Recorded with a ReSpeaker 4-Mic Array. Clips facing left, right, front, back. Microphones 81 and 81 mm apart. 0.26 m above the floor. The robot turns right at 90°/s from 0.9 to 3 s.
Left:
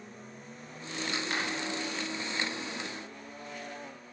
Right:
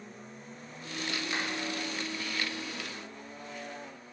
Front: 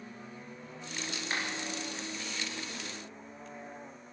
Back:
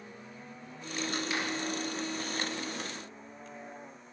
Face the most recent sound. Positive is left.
turn(degrees=-155)